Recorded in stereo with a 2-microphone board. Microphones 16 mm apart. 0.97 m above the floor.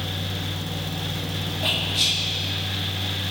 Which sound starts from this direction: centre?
Whispering, at 1.6 s.